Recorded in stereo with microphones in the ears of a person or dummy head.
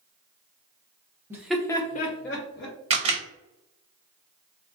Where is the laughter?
10° right (ahead or behind), 0.7 m; by 2.8 s 65° left (ahead or behind), 1.0 m.